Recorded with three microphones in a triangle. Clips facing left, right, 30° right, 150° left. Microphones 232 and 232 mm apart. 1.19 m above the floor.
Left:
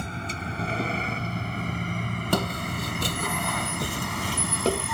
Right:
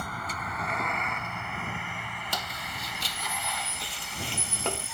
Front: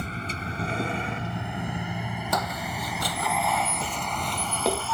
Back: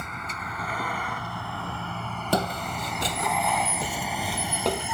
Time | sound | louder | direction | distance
0.0 | a vehicle | left 5 dB, front 5 dB | 25° left | ?
2.3 | footsteps | left 15 dB, back 6 dB | 100° left | ?